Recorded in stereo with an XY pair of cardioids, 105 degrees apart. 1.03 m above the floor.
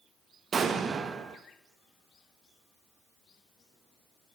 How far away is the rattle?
I don't hear a rattle.